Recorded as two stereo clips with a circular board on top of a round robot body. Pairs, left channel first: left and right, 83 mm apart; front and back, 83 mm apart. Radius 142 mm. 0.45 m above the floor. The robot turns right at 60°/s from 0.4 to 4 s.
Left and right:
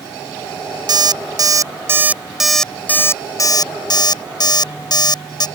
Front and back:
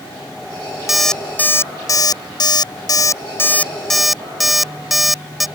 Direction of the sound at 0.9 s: 95° right.